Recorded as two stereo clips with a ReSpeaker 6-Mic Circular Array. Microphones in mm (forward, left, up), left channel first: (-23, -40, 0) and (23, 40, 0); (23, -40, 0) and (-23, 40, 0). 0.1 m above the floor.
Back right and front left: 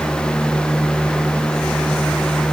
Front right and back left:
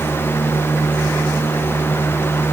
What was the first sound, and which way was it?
Only background noise.